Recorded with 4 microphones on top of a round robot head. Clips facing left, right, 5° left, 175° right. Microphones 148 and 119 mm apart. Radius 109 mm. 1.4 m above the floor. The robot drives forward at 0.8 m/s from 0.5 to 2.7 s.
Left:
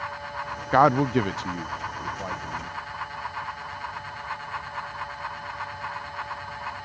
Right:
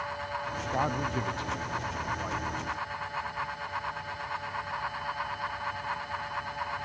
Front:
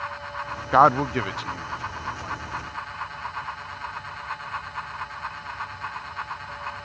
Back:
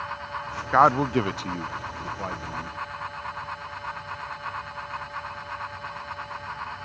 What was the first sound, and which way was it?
A man speaking, 80° left.